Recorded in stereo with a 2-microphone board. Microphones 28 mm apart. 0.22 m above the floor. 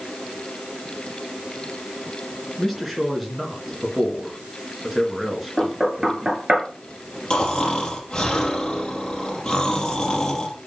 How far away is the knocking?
About 2.5 m.